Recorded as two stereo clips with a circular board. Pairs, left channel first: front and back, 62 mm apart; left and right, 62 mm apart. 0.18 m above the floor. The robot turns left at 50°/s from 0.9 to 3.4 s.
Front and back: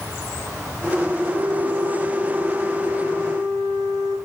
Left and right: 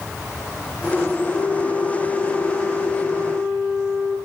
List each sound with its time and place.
1.3 s a flute: 10° left, 7.5 m; by 4.2 s 100° right, 7.5 m